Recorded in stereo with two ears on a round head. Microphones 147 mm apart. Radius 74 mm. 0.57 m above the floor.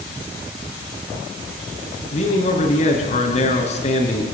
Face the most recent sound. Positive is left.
turn(degrees=45)  # may be behind; listen again after turning